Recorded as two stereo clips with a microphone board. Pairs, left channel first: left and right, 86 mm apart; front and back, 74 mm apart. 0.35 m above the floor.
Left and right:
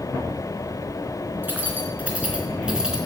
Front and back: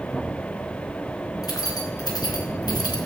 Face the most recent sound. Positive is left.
turn(degrees=-10)